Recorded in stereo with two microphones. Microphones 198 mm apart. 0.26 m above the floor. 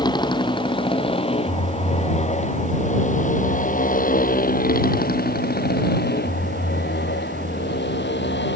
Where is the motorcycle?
20° left (ahead or behind); by 8.6 s 65° left (ahead or behind).